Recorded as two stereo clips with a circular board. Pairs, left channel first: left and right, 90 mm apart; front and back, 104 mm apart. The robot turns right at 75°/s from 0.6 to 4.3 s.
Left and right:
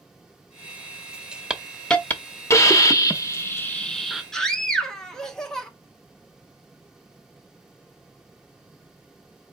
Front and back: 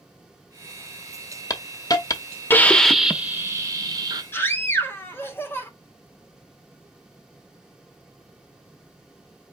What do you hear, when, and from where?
1.5 s a hiss: 20° right, 0.7 m; by 4.2 s 175° right, 0.7 m
4.3 s a scream: 15° left, 1.0 m